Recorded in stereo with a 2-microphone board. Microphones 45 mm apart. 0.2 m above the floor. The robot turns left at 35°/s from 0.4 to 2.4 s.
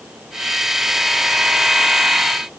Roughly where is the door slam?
I don't hear a door slam.